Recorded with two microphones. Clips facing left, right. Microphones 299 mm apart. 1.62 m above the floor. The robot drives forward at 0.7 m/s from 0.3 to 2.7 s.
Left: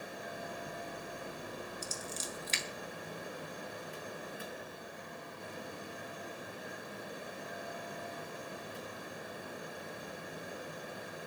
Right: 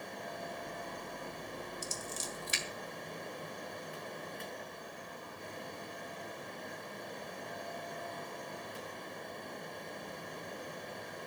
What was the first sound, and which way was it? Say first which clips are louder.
Scissors: even; 15° right (ahead or behind).